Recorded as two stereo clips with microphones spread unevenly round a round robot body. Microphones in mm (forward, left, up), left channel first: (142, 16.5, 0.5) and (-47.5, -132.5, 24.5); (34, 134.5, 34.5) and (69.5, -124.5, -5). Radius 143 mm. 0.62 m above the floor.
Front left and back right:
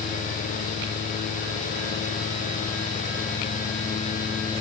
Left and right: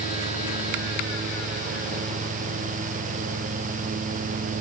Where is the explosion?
No explosion in this recording.